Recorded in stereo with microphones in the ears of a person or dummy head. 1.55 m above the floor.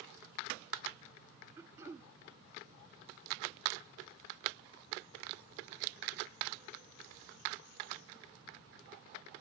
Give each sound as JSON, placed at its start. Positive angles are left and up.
{"t": 1.6, "sound": "throat clearing", "side_deg": -15, "distance_m": 0.7}